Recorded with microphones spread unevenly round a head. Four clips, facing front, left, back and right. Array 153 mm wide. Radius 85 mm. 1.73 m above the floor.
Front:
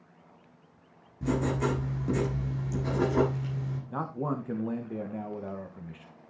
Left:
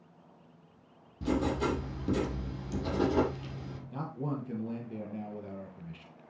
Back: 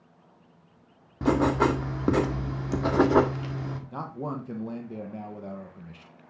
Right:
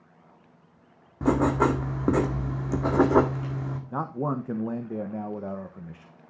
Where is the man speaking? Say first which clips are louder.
Right 7 dB, front 3 dB; 80° right, 1.3 m.